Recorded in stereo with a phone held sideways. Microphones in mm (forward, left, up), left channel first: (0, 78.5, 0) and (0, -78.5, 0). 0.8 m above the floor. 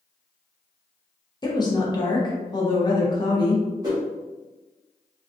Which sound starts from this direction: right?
A whoosh, at 3.8 s.